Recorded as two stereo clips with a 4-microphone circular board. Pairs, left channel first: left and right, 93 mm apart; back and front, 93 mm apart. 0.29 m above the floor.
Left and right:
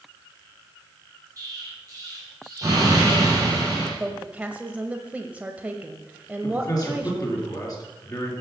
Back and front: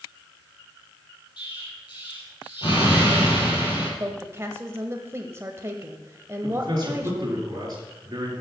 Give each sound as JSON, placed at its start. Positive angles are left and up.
{"t": 1.4, "sound": "an explosion", "azimuth_deg": -145, "distance_m": 5.5}
{"t": 4.0, "sound": "a woman speaking", "azimuth_deg": -30, "distance_m": 1.1}
{"t": 6.4, "sound": "a man speaking", "azimuth_deg": 40, "distance_m": 4.5}